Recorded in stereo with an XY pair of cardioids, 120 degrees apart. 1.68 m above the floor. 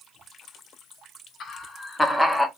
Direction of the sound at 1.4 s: 50° left.